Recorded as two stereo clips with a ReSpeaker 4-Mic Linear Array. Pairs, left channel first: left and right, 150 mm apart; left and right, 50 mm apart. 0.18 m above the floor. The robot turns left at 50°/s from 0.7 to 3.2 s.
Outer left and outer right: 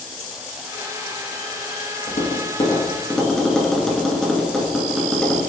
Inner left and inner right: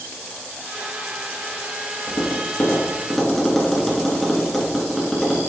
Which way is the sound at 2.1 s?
50° left (ahead or behind).